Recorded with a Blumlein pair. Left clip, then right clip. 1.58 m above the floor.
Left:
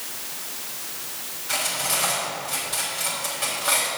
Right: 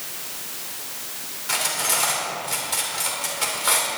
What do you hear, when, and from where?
1.5 s cutlery clinking: 50° right, 3.5 m